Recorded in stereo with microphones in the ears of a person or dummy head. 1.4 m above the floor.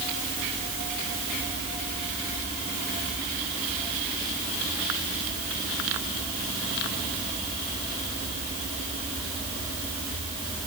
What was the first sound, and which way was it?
Only background noise.